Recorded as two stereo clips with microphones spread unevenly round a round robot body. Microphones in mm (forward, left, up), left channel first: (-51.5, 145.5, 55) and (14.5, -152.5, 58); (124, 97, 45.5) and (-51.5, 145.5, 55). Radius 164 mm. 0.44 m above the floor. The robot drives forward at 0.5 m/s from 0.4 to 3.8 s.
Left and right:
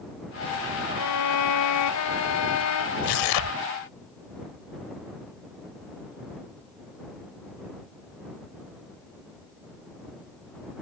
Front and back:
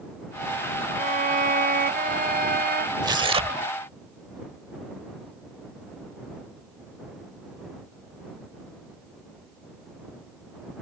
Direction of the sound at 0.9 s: 120° left.